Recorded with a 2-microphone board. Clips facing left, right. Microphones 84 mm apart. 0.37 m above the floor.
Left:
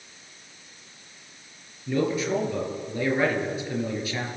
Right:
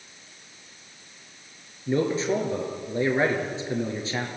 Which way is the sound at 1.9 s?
25° right (ahead or behind).